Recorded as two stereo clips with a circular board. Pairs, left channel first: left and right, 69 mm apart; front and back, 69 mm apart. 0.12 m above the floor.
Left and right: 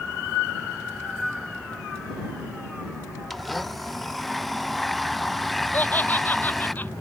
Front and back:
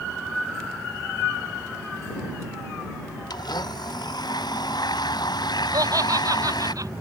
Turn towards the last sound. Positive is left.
turn(degrees=155)